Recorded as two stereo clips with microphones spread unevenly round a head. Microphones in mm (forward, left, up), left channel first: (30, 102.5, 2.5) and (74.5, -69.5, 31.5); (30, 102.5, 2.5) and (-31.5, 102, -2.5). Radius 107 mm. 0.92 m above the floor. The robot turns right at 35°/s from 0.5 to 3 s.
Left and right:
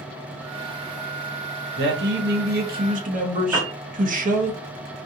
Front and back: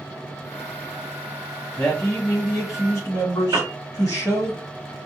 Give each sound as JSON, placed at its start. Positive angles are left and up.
{"t": 1.8, "sound": "a man speaking", "azimuth_deg": -80, "distance_m": 1.2}
{"t": 3.5, "sound": "a piano", "azimuth_deg": -155, "distance_m": 0.8}